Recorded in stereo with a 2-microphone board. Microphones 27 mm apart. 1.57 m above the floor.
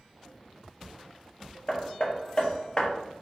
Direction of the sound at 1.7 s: 35° left (ahead or behind).